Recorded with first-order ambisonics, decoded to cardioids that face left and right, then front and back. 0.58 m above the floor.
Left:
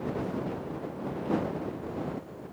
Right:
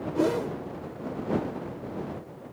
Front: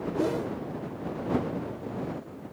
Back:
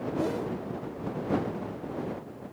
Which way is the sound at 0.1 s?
85° right.